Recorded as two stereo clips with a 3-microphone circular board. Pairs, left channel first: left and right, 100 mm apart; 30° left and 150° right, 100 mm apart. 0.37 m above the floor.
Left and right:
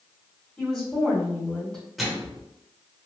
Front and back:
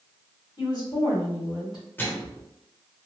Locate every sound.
0.6 s a woman speaking: 10° left, 1.9 m
2.0 s a microwave: straight ahead, 0.9 m